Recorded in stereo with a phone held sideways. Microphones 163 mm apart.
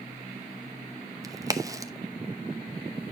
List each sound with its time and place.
1.2 s a crack: 20° right (ahead or behind), 0.8 m